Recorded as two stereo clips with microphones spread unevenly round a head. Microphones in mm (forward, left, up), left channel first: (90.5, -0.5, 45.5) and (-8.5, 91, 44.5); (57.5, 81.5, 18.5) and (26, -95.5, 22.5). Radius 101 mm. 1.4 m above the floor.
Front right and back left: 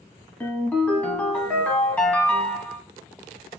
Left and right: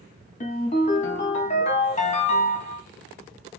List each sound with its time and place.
0.4 s a ringtone: 35° left, 0.9 m